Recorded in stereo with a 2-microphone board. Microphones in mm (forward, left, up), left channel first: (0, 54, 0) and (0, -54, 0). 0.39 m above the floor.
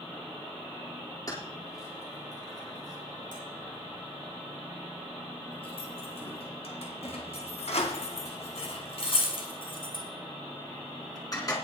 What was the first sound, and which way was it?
Keys jangling, 35° left (ahead or behind).